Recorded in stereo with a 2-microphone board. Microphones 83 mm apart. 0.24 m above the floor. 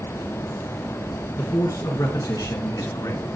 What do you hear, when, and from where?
1.4 s a man speaking: 40° left (ahead or behind), 3.5 m; by 3.3 s 60° left (ahead or behind), 2.5 m